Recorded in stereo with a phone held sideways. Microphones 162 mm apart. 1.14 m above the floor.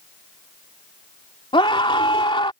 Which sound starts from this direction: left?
A scream, at 1.5 s.